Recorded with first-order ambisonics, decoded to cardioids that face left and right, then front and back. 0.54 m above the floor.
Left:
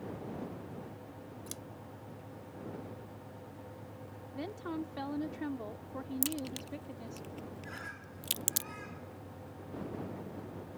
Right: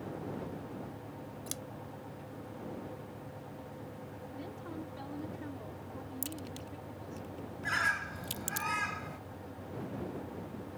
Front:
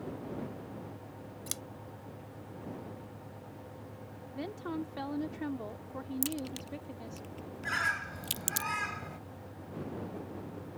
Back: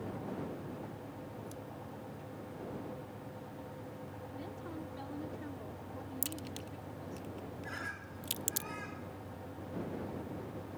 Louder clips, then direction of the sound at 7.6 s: Right 18 dB, front 13 dB; 50° right.